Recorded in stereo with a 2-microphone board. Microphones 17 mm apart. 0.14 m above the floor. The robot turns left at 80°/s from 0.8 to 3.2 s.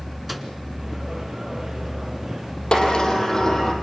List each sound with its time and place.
0.3 s a microwave: 10° right (ahead or behind), 1.6 m
2.7 s a sliding door: 75° left, 4 m; by 3.7 s 35° left, 4 m